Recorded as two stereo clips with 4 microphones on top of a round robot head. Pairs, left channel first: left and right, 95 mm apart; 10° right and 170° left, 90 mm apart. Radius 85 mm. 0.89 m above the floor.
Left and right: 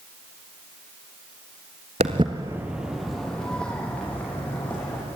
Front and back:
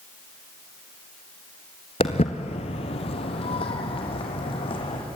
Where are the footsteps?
55° right, 1.1 m; by 5.0 s 15° left, 4.5 m.